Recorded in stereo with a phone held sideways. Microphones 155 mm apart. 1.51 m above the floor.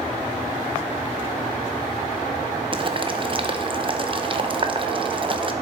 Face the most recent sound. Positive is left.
turn(degrees=-35)  # may be behind; listen again after turning